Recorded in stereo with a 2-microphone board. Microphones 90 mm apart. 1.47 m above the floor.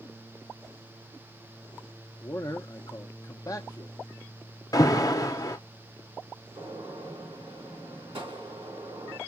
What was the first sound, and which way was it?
A man speaking, 35° left (ahead or behind).